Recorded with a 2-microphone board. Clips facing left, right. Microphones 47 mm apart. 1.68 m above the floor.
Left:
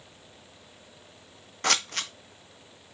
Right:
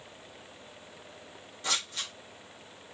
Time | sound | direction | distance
1.6 | scissors | 70° left (ahead or behind) | 1.2 m